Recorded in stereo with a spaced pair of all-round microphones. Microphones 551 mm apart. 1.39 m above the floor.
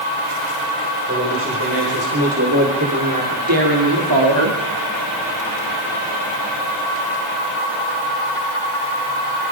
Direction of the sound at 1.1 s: 20° right (ahead or behind).